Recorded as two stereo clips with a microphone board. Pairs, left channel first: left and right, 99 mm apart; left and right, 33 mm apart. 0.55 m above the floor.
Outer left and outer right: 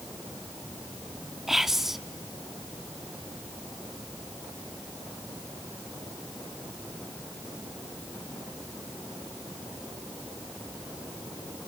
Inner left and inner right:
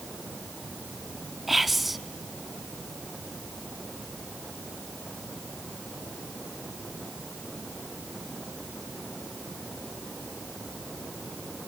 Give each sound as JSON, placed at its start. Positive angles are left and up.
{"t": 1.5, "sound": "whispering", "side_deg": -5, "distance_m": 0.6}